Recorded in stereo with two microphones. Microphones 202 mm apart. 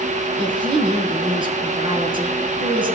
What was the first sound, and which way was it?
A woman speaking, 25° right (ahead or behind).